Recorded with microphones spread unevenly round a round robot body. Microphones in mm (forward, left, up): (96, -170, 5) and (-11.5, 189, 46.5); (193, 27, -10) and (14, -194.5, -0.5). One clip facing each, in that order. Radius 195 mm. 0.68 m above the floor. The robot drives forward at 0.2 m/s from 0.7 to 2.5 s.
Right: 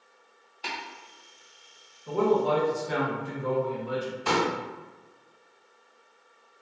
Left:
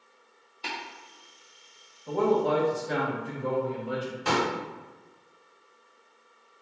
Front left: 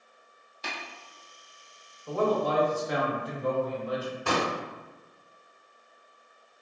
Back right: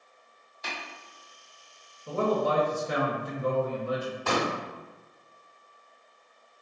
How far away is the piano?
I don't hear a piano.